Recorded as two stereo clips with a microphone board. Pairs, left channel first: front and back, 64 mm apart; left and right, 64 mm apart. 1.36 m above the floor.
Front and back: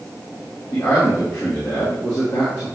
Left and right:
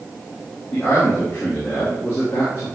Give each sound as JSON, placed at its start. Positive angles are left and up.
{"t": 0.7, "sound": "a man speaking", "azimuth_deg": 35, "distance_m": 2.5}